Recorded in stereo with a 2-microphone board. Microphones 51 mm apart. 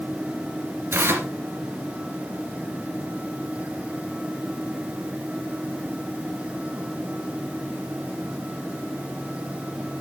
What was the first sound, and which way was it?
Tearing paper, 50° right (ahead or behind).